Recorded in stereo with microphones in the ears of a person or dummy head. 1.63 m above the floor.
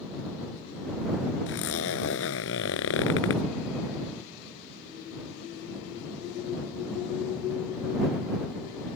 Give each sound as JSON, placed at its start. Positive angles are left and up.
{"t": 1.5, "sound": "a zipper", "side_deg": 70}